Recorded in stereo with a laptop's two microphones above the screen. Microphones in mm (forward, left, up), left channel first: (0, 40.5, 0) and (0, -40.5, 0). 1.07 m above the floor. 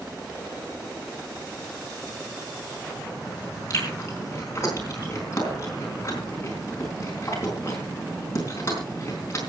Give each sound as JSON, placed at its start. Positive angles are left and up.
{"t": 3.7, "sound": "chewing", "side_deg": 35, "distance_m": 4.5}